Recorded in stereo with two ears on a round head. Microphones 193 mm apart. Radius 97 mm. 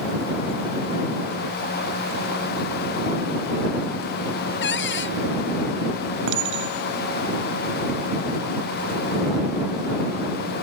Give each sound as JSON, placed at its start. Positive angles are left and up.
{"t": 4.6, "sound": "a cupboard door", "side_deg": 55}
{"t": 6.3, "sound": "a clink", "side_deg": -65}